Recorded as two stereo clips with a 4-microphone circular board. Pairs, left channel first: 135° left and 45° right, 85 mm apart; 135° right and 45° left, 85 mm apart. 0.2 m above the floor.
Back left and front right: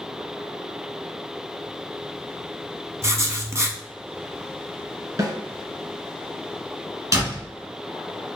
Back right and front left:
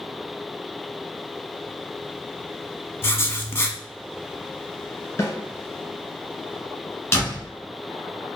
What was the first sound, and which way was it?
Writing, 85° right.